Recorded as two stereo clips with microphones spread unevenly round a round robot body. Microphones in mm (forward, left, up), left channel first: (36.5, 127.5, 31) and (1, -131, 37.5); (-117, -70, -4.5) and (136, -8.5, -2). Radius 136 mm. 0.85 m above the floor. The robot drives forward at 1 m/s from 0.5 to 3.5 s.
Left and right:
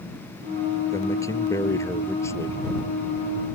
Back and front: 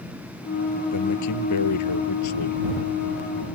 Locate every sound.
0.9 s a man speaking: 160° left; by 2.6 s 165° left